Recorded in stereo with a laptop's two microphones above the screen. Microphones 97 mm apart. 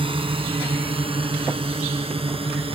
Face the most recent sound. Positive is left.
turn(degrees=-70)  # may be behind; listen again after turning